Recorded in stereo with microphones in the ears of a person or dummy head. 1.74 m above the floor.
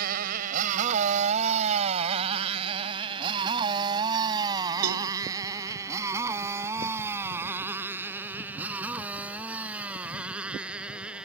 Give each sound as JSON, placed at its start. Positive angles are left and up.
{"t": 0.0, "sound": "a motorcycle", "side_deg": -50}
{"t": 4.8, "sound": "a cowbell", "side_deg": -85}